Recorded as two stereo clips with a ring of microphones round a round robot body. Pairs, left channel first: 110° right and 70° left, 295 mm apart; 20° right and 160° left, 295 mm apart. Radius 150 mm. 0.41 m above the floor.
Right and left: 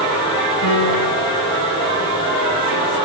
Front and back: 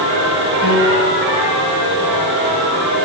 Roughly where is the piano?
Behind right.